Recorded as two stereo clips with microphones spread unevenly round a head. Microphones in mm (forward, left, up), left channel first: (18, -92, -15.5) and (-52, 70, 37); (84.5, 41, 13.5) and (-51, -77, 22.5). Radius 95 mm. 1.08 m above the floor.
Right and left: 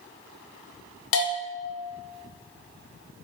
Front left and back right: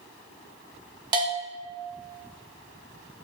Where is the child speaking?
No child speaking in this recording.